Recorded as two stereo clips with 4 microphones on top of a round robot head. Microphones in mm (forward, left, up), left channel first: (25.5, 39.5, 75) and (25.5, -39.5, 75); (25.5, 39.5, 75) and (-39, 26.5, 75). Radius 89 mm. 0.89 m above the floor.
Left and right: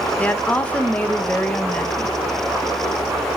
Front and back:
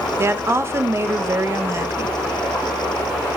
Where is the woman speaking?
160° left, 1.0 m.